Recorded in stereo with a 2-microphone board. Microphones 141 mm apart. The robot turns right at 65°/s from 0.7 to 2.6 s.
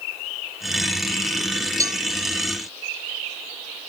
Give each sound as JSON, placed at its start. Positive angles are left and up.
{"t": 1.8, "sound": "a cowbell", "side_deg": -25}